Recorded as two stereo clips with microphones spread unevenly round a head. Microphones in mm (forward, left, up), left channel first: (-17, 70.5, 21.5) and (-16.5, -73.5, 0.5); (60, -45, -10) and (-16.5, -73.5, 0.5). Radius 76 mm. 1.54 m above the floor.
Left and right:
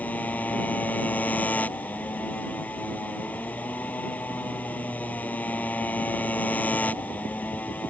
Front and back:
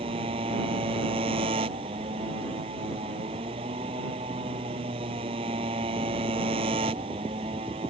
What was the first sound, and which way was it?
A motorcycle, 170° left.